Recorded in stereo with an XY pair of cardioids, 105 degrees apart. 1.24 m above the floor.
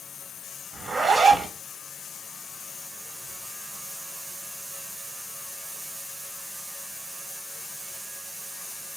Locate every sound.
0.7 s a zipper: 40° right, 1.6 m